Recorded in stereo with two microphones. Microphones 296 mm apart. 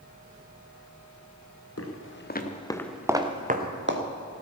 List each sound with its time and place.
1.8 s footsteps: 50° left (ahead or behind), 2.0 m; by 4.0 s 45° right (ahead or behind), 2 m